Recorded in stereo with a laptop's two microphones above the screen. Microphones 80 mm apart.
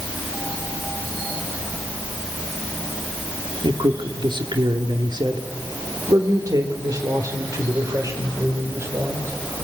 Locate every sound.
3.6 s a man speaking: 80° right, 1.9 m; by 9.3 s 35° right (ahead or behind), 4 m